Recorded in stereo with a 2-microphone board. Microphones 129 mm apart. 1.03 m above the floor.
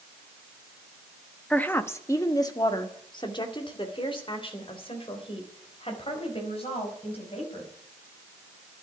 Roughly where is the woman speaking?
Centre.